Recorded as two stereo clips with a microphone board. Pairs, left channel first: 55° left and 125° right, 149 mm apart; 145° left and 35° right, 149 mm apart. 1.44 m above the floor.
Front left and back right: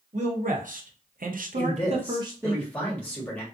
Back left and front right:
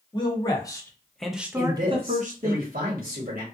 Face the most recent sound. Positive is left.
turn(degrees=-25)